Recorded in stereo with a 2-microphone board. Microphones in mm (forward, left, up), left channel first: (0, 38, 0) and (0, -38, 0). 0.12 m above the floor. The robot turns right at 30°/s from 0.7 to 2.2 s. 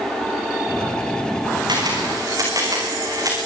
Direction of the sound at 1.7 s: 65° right (ahead or behind).